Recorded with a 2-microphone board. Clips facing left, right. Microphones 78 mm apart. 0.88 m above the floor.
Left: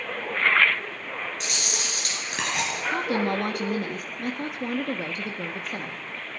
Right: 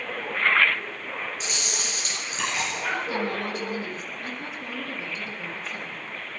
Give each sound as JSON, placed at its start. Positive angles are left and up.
{"t": 1.4, "sound": "chewing", "side_deg": 70, "distance_m": 4.5}
{"t": 2.9, "sound": "a woman speaking", "side_deg": 60, "distance_m": 1.1}